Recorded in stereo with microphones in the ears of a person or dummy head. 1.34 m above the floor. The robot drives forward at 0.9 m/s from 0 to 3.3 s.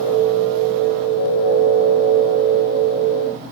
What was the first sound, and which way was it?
Only background noise.